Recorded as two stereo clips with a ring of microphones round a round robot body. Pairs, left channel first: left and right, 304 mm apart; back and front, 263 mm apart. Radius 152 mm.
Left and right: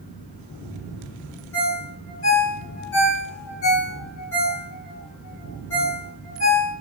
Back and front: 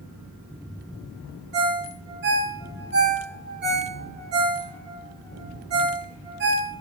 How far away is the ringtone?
About 1.1 m.